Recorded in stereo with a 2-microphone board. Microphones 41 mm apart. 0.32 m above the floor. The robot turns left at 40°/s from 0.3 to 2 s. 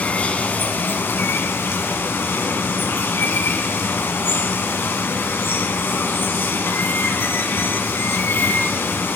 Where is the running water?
140° left, 1.5 m; by 9.2 s 75° left, 1.5 m.